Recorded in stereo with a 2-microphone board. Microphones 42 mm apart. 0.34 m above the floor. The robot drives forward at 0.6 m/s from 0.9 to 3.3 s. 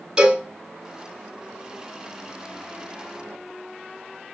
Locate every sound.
0.2 s a cowbell: 15° right (ahead or behind), 3 m